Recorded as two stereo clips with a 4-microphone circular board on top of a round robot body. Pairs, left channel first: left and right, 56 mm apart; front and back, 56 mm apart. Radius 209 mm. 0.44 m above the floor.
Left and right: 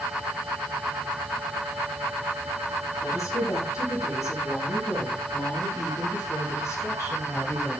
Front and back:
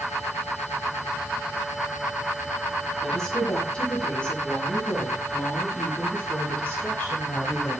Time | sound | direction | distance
3.0 | a woman speaking | 75° left | 6 m